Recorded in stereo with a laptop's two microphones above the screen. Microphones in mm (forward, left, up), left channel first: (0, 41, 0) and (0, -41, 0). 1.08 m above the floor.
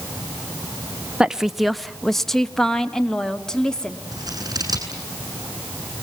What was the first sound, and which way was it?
A woman speaking, 10° right (ahead or behind).